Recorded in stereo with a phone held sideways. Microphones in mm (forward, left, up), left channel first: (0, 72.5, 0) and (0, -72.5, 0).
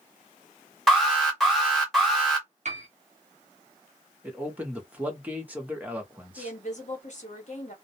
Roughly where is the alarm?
Centre.